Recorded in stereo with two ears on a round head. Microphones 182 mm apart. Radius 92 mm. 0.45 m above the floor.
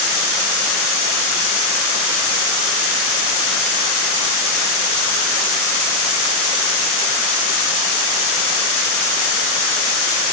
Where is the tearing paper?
No tearing paper in this recording.